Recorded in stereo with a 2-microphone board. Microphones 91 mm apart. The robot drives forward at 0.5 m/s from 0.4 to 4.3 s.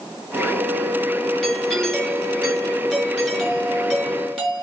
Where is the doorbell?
5° left (ahead or behind), 2.5 m.